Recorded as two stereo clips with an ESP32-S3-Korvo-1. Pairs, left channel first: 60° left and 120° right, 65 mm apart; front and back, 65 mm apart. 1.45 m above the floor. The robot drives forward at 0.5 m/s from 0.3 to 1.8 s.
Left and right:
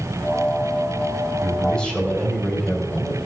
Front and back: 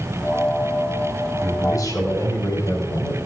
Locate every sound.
1.4 s a man speaking: 15° right, 4.5 m